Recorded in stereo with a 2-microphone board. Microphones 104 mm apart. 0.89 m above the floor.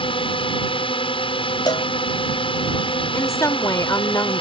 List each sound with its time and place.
0.0 s a drone: 55° left (ahead or behind)
1.7 s a cowbell: 45° left (ahead or behind)
3.1 s a woman speaking: 30° left (ahead or behind)